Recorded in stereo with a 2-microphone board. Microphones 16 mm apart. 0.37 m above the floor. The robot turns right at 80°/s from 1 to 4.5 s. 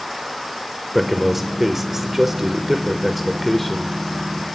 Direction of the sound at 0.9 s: Centre (ahead or behind).